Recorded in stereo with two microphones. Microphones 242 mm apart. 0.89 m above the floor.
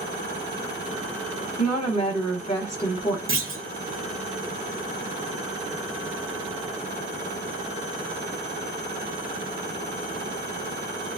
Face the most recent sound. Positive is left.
turn(degrees=-55)  # may be behind; listen again after turning